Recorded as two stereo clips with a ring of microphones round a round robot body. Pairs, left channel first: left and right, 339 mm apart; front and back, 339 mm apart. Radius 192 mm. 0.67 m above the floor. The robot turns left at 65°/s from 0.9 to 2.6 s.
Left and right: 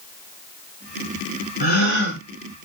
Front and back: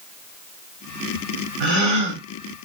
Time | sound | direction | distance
1.6 | a gasp | 160° left | 3.5 m